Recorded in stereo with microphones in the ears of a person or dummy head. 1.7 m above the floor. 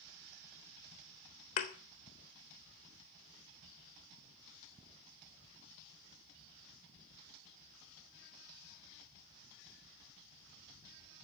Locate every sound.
1.6 s a thud: 20° left (ahead or behind), 1.2 m